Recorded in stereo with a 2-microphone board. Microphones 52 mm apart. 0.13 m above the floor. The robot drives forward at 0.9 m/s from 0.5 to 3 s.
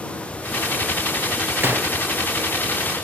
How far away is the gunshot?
About 3 m.